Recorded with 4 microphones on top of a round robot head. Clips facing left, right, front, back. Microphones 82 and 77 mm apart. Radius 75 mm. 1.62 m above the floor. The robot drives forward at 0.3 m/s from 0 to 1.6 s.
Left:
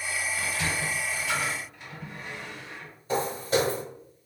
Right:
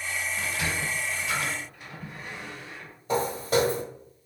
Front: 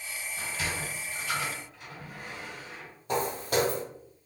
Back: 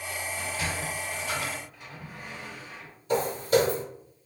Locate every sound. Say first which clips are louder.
0.4 s a sliding door: even, even; 125° right, 1.4 m; by 2.9 s 150° right, 1.5 m
3.1 s footsteps: right 1 dB, back 5 dB; 50° right, 1.9 m